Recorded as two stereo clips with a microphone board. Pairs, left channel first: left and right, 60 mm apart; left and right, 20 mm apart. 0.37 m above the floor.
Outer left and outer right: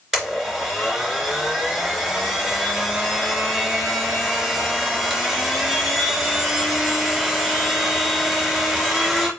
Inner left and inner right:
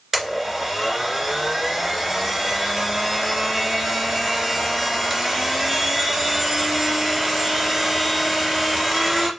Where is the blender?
5° right (ahead or behind), 2.5 m.